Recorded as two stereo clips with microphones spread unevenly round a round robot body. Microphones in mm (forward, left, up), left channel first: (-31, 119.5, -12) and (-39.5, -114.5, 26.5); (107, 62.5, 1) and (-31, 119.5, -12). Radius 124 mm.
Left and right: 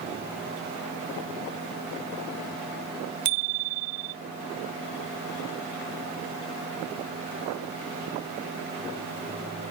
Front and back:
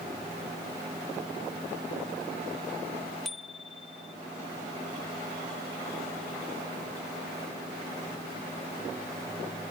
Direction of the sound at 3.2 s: 110° right.